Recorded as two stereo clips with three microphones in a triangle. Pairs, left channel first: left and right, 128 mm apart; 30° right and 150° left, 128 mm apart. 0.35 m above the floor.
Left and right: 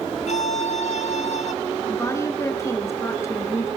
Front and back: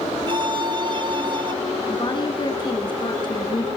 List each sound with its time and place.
0.3 s a violin: 105° left, 0.6 m
1.9 s a woman speaking: 25° left, 3.5 m